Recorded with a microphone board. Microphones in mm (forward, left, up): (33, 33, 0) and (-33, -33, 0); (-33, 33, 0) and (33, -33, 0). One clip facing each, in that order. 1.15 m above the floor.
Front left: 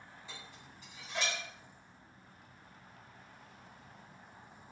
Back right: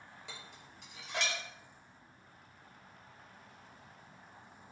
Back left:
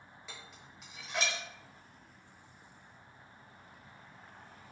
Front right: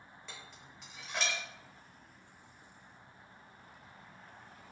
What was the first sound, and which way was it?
Dishes clattering, 140° right.